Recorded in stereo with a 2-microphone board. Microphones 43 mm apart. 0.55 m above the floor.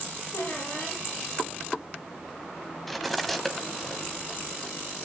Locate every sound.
0.3 s a squeak: 80° left, 9.5 m
2.9 s cutlery clinking: centre (ahead or behind), 1.8 m